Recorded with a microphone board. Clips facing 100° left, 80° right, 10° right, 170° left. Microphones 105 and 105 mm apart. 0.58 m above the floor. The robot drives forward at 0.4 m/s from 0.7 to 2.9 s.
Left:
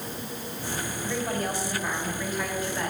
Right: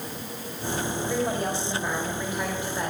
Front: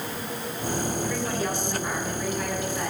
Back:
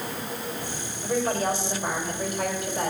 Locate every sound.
1.0 s a woman speaking: 140° right, 3 m; by 2.9 s 150° right, 3.5 m